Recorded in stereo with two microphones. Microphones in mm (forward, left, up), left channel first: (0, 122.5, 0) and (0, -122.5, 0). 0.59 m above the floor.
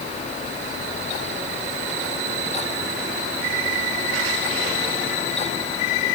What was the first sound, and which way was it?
Only background noise.